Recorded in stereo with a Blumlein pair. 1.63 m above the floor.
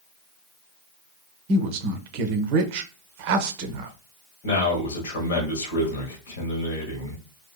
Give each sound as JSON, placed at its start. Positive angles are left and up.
{"t": 1.5, "sound": "a woman speaking", "azimuth_deg": -45, "distance_m": 0.5}
{"t": 4.4, "sound": "a man speaking", "azimuth_deg": 60, "distance_m": 1.1}